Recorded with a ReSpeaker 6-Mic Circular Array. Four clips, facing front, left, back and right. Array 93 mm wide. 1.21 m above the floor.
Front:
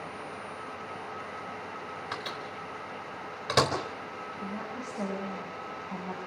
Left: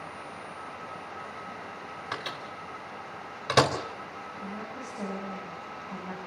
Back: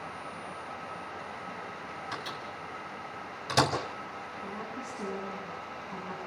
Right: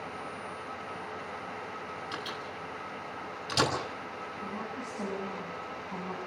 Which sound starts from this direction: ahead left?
A microwave, at 2.1 s.